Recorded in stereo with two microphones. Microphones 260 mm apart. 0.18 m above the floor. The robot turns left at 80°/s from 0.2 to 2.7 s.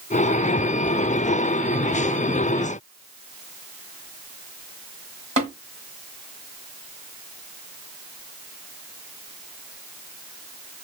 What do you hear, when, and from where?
5.4 s tapping: 25° right (ahead or behind), 1.8 m